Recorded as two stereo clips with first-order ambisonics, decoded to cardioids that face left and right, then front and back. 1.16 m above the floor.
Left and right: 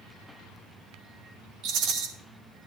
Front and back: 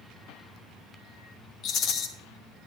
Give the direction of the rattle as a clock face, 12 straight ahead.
2 o'clock.